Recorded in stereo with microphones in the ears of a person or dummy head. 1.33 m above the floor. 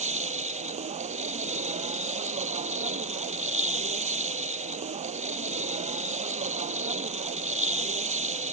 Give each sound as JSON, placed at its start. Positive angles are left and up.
{"t": 0.0, "sound": "a machine running", "side_deg": -30}